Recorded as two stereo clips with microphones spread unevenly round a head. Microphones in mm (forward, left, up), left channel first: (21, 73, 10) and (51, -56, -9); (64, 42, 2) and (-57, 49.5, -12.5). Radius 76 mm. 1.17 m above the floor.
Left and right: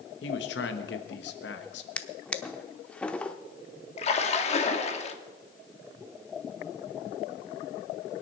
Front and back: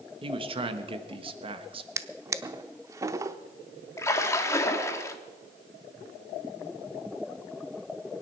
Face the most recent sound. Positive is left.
turn(degrees=65)